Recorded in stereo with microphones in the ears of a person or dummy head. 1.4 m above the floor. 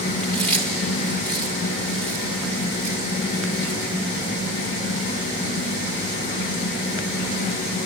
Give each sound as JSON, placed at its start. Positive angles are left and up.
{"t": 0.2, "sound": "chewing", "side_deg": 5, "distance_m": 1.9}